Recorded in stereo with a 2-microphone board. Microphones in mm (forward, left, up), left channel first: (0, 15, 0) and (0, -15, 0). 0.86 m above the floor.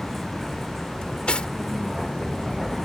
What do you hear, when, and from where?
0.0 s a vehicle: 5° right (ahead or behind)
1.0 s cutlery clinking: 35° left (ahead or behind)